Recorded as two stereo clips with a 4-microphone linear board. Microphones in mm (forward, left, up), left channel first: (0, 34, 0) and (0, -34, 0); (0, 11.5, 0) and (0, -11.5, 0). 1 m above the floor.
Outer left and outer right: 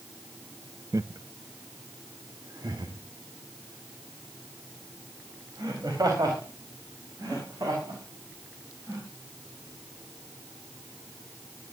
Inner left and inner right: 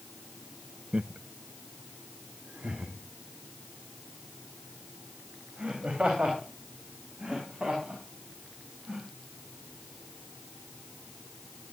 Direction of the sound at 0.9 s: 50° right (ahead or behind).